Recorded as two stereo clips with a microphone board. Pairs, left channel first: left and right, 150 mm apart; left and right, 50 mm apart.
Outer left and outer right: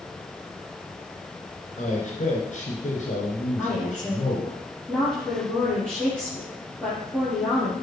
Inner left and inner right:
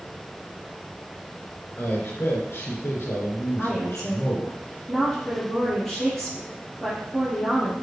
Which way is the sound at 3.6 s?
10° left (ahead or behind).